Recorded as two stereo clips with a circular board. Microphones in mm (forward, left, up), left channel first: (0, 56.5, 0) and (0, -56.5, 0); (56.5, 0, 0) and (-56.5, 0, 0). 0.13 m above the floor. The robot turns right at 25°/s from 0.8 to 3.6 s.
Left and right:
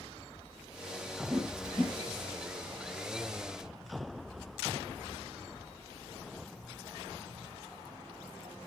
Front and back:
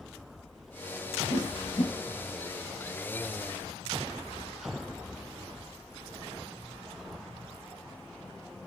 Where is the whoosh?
5° right, 2.0 m; by 1.9 s 10° left, 2.0 m.